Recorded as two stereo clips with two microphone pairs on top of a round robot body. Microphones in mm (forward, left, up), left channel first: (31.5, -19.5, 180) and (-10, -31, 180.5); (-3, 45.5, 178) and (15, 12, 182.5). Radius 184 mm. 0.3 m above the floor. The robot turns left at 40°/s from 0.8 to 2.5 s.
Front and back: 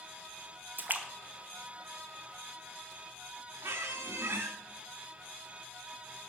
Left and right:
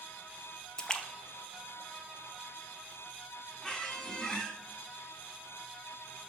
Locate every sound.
0.8 s a splash: 175° left, 1.3 m; by 2.9 s 105° left, 1.3 m
3.6 s a squeak: 170° right, 0.6 m